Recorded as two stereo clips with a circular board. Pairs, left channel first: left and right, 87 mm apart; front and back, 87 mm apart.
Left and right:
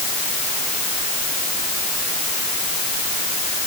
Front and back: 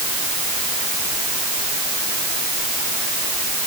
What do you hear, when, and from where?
Only background noise.